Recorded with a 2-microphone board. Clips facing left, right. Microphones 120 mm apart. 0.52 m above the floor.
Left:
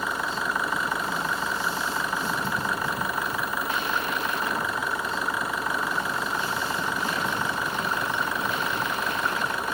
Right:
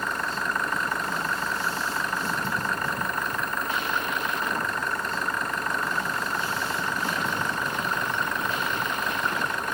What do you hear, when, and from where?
0.0 s an engine running: 10° left (ahead or behind)